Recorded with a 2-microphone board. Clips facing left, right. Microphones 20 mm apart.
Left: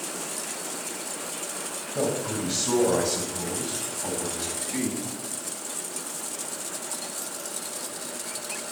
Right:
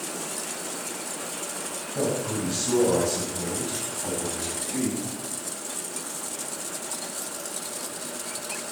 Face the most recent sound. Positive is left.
turn(degrees=60)  # may be behind; listen again after turning